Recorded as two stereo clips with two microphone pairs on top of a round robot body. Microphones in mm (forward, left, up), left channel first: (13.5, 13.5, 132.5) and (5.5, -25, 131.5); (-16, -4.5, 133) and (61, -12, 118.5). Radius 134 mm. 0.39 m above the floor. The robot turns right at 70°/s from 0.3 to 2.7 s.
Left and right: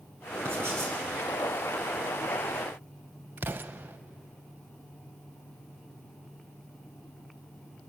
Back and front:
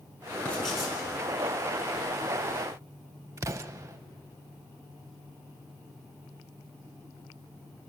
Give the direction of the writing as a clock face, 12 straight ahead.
4 o'clock.